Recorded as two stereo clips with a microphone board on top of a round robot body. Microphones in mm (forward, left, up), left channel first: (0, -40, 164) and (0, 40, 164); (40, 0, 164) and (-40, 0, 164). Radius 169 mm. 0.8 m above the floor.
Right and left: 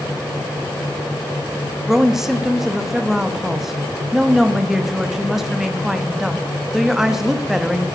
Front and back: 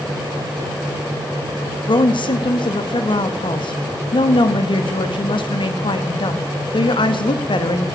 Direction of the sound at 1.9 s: 5° left.